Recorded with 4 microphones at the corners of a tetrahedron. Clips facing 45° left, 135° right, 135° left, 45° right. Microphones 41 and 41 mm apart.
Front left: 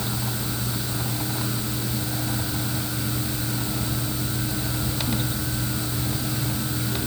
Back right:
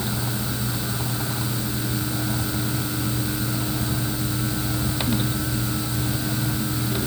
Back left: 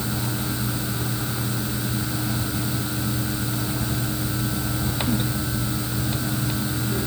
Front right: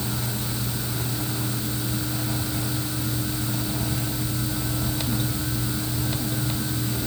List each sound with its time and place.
Only background noise.